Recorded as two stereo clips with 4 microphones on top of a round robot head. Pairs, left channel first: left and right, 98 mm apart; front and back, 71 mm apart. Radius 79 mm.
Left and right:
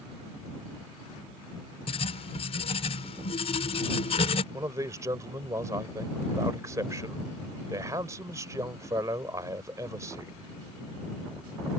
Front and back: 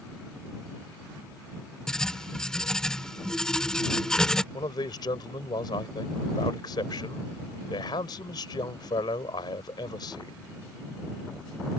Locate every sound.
1.9 s writing: 80° left
4.5 s a man speaking: 25° right